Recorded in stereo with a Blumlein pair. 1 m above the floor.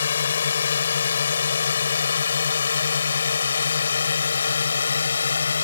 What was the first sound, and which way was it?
A drone, 65° left.